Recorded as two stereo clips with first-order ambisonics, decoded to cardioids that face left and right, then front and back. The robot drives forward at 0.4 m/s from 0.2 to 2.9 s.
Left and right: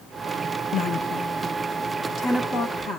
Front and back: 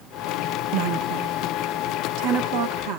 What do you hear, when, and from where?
0.7 s a woman speaking: 145° left, 1.1 m; by 3.0 s 160° left, 1.9 m